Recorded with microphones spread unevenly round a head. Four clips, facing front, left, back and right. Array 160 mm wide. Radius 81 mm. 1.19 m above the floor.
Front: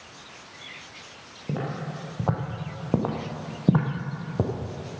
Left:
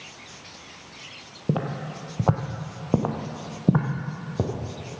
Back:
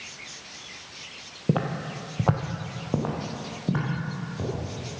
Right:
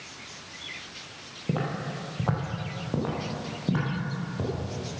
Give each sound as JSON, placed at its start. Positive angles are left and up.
{"t": 1.5, "sound": "footsteps", "azimuth_deg": 145, "distance_m": 1.6}